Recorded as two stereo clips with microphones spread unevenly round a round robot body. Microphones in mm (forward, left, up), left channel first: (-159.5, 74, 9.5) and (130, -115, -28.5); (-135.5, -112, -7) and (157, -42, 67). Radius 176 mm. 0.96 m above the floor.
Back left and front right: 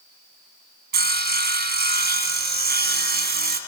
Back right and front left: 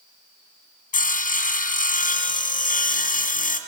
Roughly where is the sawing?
Right.